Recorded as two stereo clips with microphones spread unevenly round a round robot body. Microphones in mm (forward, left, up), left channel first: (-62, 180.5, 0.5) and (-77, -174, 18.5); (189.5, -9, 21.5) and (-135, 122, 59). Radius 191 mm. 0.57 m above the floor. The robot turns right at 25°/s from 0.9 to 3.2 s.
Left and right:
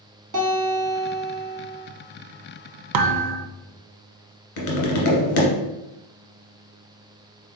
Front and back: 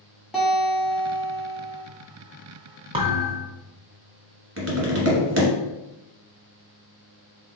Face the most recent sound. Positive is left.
turn(degrees=105)